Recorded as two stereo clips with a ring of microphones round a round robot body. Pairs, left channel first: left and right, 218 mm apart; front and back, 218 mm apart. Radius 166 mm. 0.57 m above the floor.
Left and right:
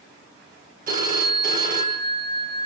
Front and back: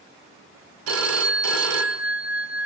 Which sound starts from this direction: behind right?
A phone ringing, at 0.9 s.